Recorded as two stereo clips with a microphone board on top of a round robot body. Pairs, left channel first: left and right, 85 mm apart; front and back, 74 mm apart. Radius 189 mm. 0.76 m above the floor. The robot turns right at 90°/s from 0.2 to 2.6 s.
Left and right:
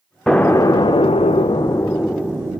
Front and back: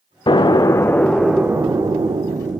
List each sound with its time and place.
0.3 s an explosion: 5° left, 0.5 m; by 2.6 s 145° right, 0.5 m